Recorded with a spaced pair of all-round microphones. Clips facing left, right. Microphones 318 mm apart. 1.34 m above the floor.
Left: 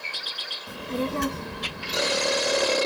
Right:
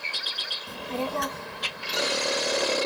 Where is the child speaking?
10° left (ahead or behind); by 2.8 s 25° left (ahead or behind).